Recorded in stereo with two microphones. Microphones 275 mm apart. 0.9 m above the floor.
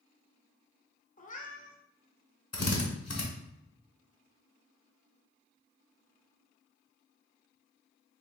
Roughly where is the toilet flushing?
I don't hear a toilet flushing.